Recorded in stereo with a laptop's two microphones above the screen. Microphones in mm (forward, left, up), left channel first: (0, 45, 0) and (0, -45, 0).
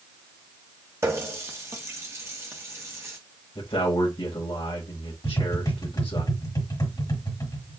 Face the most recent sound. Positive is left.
turn(degrees=45)  # may be behind; listen again after turning